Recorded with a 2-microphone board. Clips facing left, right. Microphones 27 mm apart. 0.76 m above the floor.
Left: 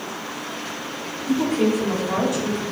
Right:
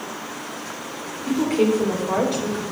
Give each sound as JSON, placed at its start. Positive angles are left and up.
{"t": 1.3, "sound": "a woman speaking", "side_deg": -60, "distance_m": 2.5}